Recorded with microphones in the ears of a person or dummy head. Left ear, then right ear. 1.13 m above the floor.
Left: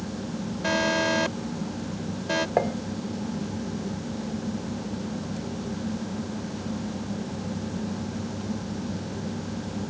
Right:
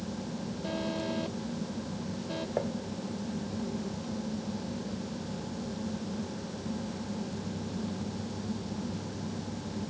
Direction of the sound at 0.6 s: 55° left (ahead or behind).